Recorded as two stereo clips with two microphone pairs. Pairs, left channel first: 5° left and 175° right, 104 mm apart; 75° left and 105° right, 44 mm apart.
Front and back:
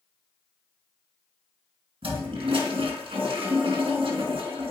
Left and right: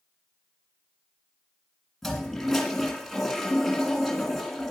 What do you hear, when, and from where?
2.0 s a toilet flushing: 160° left, 3 m